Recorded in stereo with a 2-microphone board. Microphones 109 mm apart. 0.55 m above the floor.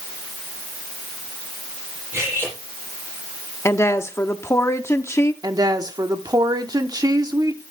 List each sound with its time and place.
2.1 s cutlery clinking: 20° right (ahead or behind), 9 m
3.6 s a woman speaking: 25° left (ahead or behind), 0.9 m
5.4 s a woman speaking: 40° right (ahead or behind), 1.1 m